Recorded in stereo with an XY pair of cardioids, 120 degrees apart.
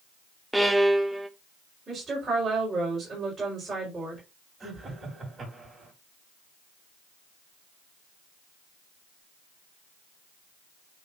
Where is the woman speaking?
25° right, 5 m.